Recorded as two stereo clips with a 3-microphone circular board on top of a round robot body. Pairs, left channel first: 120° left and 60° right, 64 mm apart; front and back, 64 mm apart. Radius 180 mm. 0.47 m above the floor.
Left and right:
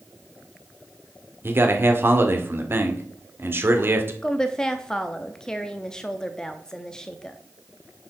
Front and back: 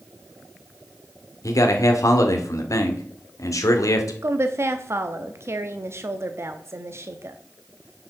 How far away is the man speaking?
About 2 m.